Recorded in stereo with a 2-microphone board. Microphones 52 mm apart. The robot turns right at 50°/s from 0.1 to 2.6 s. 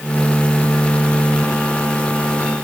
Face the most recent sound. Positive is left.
No sound to turn to.